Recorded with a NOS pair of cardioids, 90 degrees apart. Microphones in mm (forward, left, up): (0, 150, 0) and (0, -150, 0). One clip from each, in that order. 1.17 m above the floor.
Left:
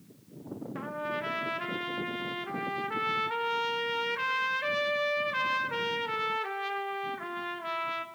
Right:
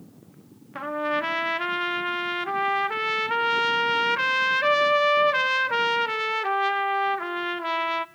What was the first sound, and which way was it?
A trumpet, 40° right.